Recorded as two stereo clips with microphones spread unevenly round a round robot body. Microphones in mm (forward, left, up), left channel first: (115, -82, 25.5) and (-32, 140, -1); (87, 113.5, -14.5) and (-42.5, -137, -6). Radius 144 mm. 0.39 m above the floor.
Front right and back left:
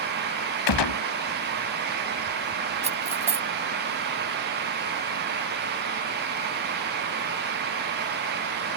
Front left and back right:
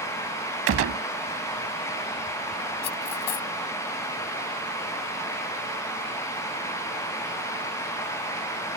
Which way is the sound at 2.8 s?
60° left.